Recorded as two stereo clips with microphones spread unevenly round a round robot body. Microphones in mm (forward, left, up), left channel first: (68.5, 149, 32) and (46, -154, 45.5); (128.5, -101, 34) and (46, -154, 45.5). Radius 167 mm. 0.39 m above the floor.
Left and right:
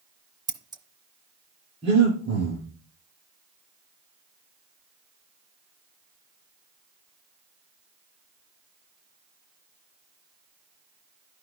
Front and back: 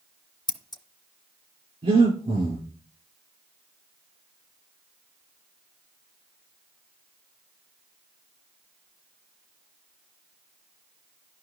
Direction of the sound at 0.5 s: 15° right.